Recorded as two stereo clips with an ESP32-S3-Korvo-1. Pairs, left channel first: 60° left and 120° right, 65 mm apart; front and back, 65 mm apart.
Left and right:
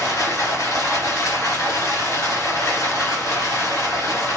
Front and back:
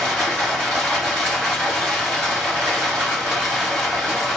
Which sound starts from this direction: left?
Running water, at 0.0 s.